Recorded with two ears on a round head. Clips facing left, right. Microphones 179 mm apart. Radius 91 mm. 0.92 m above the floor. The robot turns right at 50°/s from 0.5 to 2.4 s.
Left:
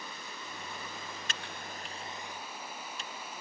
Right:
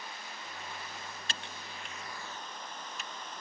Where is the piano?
No piano in this recording.